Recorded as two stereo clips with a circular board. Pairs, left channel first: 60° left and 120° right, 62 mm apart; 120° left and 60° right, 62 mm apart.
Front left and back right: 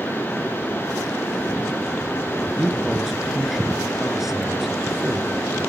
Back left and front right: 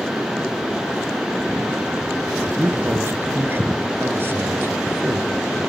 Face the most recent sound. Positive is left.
turn(degrees=-35)